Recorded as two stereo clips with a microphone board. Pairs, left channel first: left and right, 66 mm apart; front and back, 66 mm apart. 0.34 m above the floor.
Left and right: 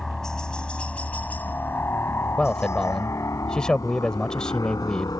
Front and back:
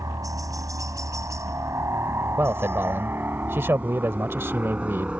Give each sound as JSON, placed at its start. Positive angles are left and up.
{"t": 0.0, "sound": "a helicopter", "azimuth_deg": 175}
{"t": 2.4, "sound": "a man speaking", "azimuth_deg": 165}